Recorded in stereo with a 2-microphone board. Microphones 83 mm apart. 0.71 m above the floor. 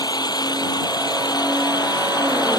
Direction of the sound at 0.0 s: 55° left (ahead or behind).